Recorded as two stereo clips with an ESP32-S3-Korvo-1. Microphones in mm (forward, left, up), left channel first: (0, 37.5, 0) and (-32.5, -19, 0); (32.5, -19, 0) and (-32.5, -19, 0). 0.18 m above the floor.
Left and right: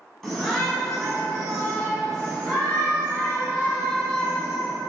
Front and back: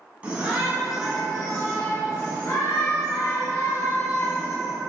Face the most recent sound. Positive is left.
turn(degrees=-35)